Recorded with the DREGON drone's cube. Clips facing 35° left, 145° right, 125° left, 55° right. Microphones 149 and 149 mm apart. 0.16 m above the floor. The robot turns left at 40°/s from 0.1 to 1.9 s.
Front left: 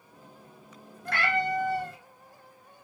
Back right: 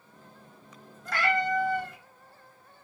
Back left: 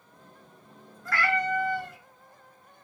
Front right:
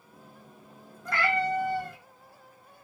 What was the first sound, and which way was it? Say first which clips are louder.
A cat meowing: back right 1 dB, even; 15° left.